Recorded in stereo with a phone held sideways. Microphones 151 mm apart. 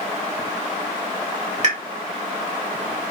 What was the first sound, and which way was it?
A pop, 55° right (ahead or behind).